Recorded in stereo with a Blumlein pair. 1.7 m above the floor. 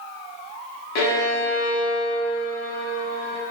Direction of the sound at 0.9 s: 40° left.